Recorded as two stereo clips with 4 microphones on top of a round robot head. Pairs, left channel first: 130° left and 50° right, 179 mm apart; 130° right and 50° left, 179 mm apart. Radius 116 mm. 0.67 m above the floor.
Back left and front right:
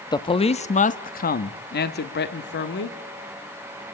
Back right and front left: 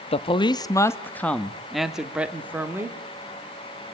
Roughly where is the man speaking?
Behind.